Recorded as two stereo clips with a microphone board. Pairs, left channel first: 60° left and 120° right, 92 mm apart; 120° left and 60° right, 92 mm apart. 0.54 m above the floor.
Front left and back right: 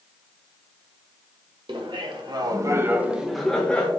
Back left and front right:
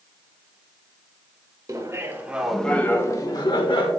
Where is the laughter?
110° right, 2.0 m; by 3.9 s 135° left, 2 m.